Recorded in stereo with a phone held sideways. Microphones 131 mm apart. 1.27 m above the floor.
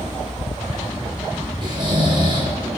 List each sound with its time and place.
1.6 s snoring: 35° right (ahead or behind), 5.5 m